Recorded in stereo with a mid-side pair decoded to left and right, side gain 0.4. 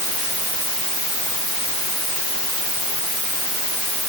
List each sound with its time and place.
Only background noise.